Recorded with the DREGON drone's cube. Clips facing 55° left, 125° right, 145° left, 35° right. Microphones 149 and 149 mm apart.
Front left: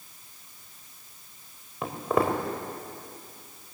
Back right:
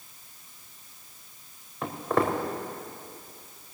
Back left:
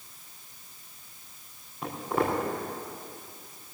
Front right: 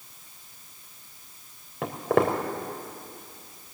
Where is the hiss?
No hiss in this recording.